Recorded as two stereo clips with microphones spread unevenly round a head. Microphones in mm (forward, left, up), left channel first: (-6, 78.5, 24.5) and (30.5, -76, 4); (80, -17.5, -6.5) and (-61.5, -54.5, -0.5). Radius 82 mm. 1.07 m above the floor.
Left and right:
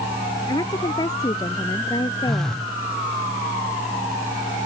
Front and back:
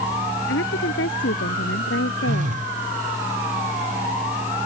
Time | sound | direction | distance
0.5 | a woman speaking | 35° left | ?
2.2 | a phone buzzing | 165° right | ?